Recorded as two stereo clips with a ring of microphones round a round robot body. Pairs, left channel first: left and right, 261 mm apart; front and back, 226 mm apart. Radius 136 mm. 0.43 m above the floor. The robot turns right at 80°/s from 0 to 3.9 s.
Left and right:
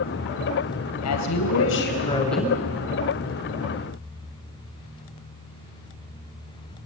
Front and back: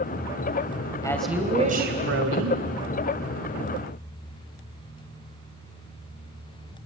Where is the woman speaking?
75° left, 3 m; by 2.6 s 165° right, 3 m.